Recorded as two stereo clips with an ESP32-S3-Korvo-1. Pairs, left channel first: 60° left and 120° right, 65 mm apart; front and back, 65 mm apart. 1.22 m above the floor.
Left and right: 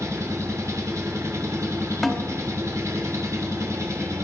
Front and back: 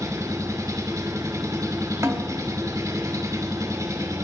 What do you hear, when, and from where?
0.0 s an engine running: 155° right, 3 m
2.0 s a snare drum: 150° left, 2.5 m